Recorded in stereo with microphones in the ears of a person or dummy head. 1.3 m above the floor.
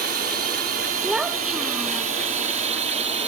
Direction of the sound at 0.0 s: 50° right (ahead or behind).